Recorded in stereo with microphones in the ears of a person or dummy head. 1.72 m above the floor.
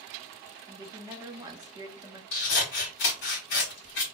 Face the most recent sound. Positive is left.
turn(degrees=55)  # may be behind; listen again after turning